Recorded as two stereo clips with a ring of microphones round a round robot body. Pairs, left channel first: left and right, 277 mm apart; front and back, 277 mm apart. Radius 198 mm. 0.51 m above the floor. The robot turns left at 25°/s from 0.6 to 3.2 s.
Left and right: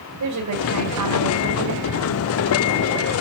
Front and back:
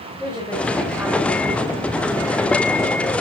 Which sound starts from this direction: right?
A woman speaking, at 0.2 s.